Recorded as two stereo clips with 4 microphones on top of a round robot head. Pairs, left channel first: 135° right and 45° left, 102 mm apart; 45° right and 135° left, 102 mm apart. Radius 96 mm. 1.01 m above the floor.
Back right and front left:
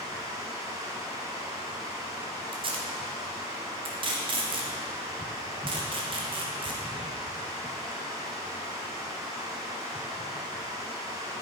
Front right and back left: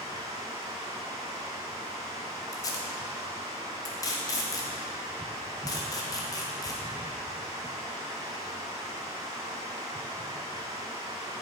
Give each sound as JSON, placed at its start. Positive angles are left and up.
{"t": 0.0, "sound": "running water", "azimuth_deg": 90, "distance_m": 1.0}
{"t": 2.5, "sound": "tape being pulled", "azimuth_deg": 10, "distance_m": 1.4}